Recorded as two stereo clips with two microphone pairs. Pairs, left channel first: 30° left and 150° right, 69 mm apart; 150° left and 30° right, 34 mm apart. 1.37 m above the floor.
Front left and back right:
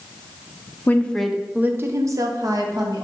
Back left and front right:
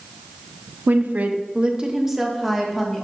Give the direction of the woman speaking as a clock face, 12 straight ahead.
1 o'clock.